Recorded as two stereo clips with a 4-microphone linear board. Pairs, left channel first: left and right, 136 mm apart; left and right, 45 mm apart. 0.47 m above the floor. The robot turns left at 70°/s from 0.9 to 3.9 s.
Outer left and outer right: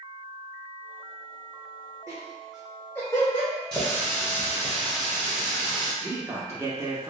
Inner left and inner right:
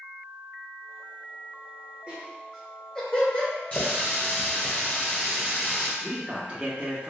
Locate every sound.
2.1 s laughter: 25° right (ahead or behind), 1.2 m; by 3.5 s 40° left (ahead or behind), 1.2 m
3.7 s a running tap: 35° left (ahead or behind), 1.3 m; by 5.9 s 25° left (ahead or behind), 1.3 m
6.0 s a man speaking: 25° right (ahead or behind), 0.7 m